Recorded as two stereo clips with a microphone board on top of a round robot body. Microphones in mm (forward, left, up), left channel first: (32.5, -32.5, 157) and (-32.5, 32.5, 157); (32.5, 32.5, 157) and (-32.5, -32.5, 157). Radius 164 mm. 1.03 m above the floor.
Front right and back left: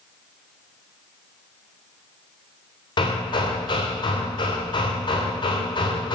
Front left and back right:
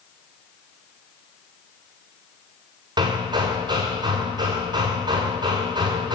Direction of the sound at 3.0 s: 90° right.